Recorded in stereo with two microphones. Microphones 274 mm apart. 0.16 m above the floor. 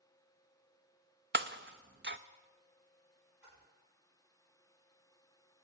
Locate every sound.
1.3 s breaking glass: 40° right (ahead or behind), 0.6 m
3.4 s a splash: 85° right, 7.5 m